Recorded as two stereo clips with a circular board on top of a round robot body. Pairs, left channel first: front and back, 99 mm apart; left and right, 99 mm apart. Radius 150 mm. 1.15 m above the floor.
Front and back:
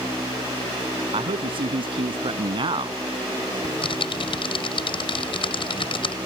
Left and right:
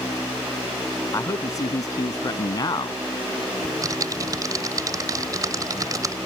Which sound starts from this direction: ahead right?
Typing on a keyboard, at 3.6 s.